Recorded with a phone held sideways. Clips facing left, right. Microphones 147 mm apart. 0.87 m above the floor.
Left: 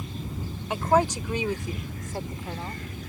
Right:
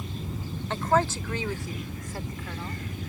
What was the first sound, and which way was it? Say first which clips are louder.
A woman speaking: left 2 dB; 15° left (ahead or behind).